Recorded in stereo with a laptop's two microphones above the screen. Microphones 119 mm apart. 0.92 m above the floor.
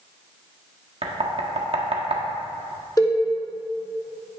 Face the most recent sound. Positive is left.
turn(degrees=30)  # may be behind; listen again after turning